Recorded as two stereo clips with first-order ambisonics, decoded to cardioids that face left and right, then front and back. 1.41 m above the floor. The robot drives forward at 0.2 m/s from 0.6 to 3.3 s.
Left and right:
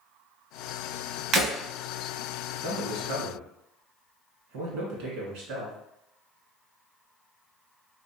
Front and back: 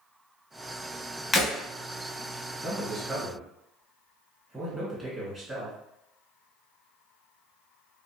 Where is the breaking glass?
75° right, 1.5 m; by 1.5 s 80° right, 1.5 m.